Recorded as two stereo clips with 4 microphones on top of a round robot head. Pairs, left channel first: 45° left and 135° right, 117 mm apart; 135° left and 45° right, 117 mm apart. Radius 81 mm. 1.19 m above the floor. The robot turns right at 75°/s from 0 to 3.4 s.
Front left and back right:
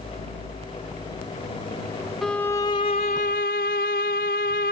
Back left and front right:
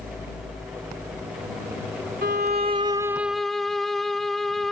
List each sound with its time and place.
2.2 s a violin: 45° right; by 4.7 s 45° left